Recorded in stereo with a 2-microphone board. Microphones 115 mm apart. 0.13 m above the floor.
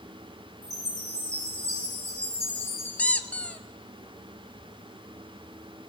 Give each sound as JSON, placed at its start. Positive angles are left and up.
{"t": 0.6, "sound": "a chime", "side_deg": -80, "distance_m": 6.5}
{"t": 3.0, "sound": "a squeak", "side_deg": 15, "distance_m": 0.6}